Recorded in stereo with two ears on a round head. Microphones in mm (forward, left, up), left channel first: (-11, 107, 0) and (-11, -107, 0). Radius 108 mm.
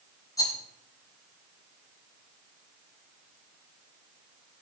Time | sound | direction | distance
0.4 | a rattle | 15° left (ahead or behind) | 4.5 m